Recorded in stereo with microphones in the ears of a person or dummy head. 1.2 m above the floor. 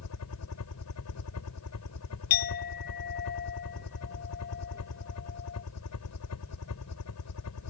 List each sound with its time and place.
0.0 s a helicopter: 70° left (ahead or behind); by 7.7 s 75° left (ahead or behind)
2.3 s a clink: 50° left (ahead or behind)